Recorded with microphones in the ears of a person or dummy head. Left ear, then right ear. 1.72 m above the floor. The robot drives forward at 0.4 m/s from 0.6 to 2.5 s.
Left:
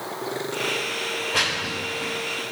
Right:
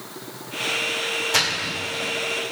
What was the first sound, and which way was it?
A splash, 80° right.